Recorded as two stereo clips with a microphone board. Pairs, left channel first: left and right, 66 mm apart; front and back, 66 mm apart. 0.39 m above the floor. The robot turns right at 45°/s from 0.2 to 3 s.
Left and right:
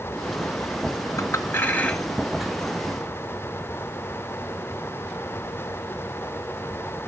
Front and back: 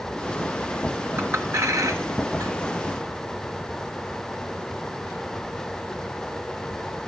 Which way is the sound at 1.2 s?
125° left.